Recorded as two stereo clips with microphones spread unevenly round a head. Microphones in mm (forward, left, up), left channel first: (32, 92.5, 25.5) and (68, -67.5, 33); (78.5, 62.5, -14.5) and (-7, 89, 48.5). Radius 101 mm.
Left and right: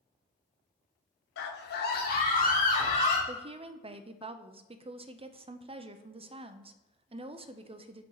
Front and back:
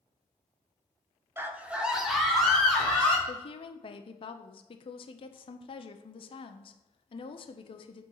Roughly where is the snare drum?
No snare drum in this recording.